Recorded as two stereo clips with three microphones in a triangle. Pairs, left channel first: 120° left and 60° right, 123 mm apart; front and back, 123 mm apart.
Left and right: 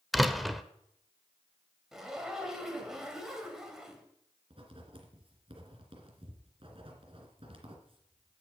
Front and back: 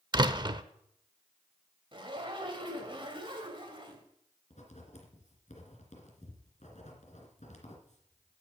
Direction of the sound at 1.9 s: 145° right.